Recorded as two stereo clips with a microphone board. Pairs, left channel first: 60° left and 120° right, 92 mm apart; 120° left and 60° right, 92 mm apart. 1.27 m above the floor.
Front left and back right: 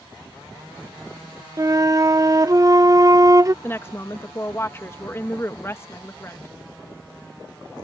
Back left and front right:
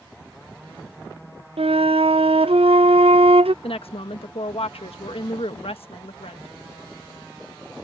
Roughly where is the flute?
Ahead right.